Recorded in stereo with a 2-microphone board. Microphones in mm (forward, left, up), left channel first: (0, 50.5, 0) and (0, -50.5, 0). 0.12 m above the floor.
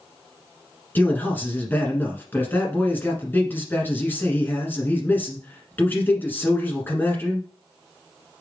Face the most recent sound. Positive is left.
turn(degrees=20)  # may be behind; listen again after turning